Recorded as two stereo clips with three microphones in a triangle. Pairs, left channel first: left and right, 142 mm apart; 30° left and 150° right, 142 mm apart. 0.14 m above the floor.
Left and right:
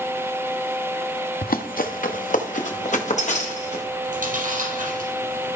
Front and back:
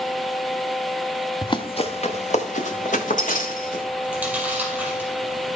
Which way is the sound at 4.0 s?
70° right.